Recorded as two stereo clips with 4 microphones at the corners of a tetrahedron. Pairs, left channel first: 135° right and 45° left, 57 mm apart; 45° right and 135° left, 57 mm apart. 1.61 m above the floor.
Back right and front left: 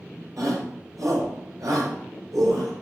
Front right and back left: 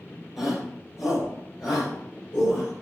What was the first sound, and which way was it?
A shout, 45° left.